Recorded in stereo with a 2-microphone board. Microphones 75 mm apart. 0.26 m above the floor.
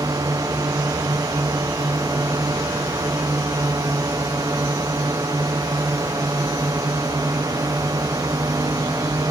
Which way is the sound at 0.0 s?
55° right (ahead or behind).